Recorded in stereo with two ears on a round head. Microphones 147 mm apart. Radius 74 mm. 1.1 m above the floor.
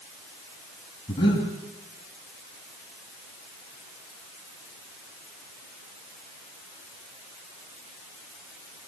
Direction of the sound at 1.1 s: 30° left (ahead or behind).